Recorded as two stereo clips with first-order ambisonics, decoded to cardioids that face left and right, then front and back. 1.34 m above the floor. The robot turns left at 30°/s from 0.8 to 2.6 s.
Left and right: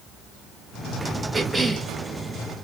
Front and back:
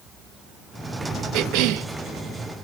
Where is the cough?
165° right, 0.6 m; by 1.9 s straight behind, 0.6 m.